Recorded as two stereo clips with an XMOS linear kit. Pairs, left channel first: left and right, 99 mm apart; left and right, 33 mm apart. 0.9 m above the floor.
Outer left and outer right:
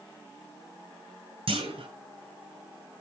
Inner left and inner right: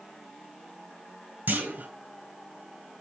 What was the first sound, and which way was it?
A clunk, 70° right (ahead or behind).